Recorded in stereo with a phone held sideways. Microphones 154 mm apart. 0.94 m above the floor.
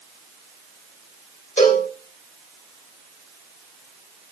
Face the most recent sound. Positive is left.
turn(degrees=55)  # may be behind; listen again after turning